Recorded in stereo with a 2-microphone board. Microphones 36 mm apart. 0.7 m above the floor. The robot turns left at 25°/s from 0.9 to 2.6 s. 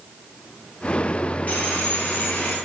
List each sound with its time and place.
1.5 s sawing: 45° left (ahead or behind), 1.2 m; by 2.6 s 50° left (ahead or behind), 1.2 m